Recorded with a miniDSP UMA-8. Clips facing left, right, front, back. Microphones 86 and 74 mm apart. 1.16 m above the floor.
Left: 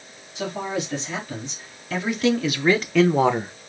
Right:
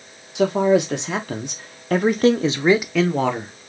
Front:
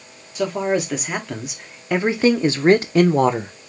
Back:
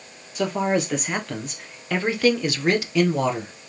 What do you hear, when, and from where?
0.3 s a man speaking: 90° right, 1.4 m; by 3.5 s 35° left, 0.6 m